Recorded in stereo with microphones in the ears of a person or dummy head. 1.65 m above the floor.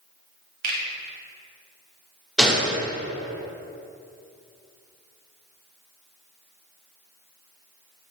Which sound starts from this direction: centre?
A gunshot, at 2.4 s.